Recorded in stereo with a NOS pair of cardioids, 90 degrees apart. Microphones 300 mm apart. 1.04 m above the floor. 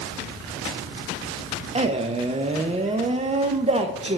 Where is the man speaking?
20° right, 0.6 m.